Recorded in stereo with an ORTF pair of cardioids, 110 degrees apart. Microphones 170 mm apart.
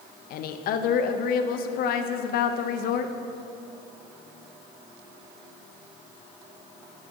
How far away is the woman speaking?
About 0.5 m.